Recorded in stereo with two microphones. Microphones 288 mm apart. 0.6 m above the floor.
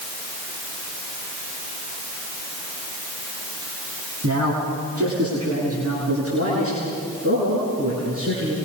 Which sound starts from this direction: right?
A man speaking, at 4.2 s.